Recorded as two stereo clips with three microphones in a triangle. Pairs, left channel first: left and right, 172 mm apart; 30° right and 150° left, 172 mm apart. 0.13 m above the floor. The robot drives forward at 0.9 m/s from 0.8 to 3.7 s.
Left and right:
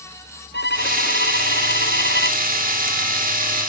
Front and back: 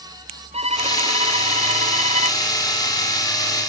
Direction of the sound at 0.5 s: 100° left.